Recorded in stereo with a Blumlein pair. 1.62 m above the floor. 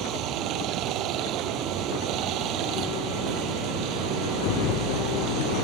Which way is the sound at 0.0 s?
35° right.